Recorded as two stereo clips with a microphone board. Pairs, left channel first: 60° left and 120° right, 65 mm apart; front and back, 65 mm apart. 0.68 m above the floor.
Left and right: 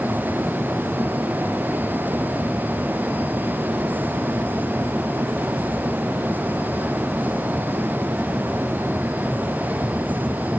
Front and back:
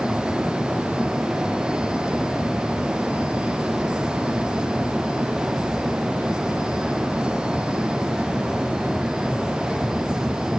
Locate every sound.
Only background noise.